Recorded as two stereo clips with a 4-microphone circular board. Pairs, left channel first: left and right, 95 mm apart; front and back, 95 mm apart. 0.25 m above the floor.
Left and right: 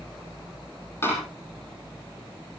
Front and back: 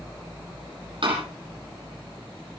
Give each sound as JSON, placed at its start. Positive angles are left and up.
{"t": 1.0, "sound": "a door slam", "azimuth_deg": 155, "distance_m": 6.5}